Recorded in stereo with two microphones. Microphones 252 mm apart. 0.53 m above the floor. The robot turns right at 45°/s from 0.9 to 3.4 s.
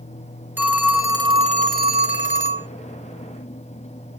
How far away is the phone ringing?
About 0.6 m.